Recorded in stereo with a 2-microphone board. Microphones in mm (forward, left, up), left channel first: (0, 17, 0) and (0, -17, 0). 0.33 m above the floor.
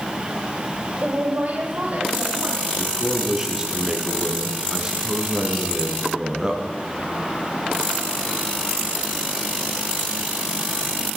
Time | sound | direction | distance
1.0 | a woman speaking | 50° right (ahead or behind) | 1.9 m
2.8 | a man speaking | 20° right (ahead or behind) | 4 m